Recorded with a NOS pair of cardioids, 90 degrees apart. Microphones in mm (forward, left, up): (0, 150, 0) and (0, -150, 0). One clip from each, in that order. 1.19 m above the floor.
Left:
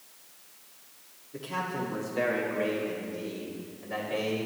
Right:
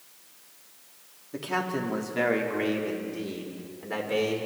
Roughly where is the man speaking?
Ahead right.